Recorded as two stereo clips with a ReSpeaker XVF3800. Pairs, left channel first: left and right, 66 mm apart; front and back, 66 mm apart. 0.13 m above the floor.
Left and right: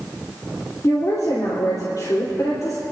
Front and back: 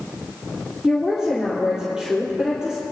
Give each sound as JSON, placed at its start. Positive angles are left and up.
{"t": 0.8, "sound": "a woman speaking", "azimuth_deg": 100, "distance_m": 3.5}